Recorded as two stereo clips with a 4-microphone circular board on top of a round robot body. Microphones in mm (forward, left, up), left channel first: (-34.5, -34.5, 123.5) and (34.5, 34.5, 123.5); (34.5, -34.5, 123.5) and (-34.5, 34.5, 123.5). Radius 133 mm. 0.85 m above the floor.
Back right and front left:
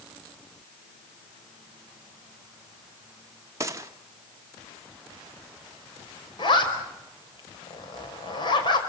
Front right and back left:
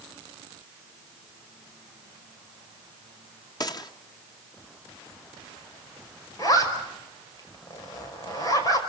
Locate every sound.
3.6 s a gunshot: 10° right, 1.6 m
6.4 s a zipper: 100° right, 5 m